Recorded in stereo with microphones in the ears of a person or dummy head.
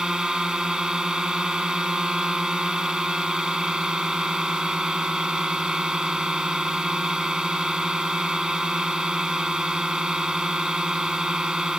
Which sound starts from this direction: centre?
A drone, at 0.0 s.